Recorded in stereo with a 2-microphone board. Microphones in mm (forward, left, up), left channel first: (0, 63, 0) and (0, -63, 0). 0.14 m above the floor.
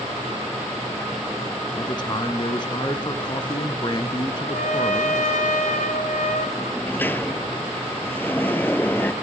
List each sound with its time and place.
1.8 s a man speaking: 35° left (ahead or behind), 1.5 m
4.4 s a trumpet: 80° left, 2.5 m
6.6 s a sliding door: 15° left (ahead or behind), 0.5 m